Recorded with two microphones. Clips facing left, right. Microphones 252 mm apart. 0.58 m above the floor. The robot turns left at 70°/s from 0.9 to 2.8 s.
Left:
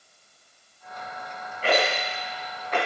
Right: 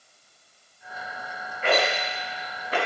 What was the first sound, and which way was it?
A rattle, 40° left (ahead or behind).